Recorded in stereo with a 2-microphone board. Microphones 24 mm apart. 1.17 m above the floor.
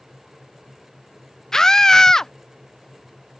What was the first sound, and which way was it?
A scream, 25° left (ahead or behind).